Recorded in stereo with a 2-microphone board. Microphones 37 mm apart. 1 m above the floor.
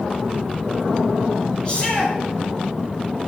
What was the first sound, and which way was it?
A shout, 30° left (ahead or behind).